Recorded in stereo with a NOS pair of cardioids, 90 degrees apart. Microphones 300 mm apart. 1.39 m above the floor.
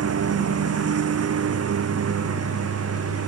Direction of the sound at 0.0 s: 55° right.